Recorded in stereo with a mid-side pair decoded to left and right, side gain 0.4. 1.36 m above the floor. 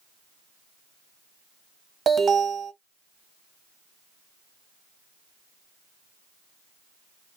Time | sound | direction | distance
2.1 | an alarm | 55° right | 1.3 m